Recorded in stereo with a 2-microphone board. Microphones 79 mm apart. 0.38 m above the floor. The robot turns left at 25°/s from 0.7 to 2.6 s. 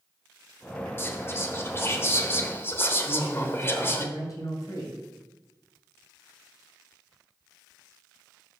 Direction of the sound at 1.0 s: 110° left.